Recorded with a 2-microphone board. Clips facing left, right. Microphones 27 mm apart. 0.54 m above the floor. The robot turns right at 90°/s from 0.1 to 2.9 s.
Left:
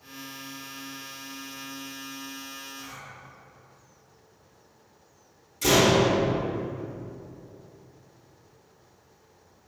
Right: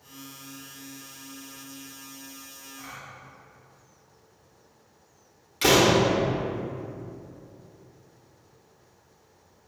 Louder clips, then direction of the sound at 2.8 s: Even; 25° right (ahead or behind).